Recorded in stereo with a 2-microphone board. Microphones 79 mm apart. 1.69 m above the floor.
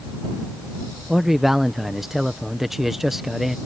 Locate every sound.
1.1 s a man speaking: 5° right (ahead or behind)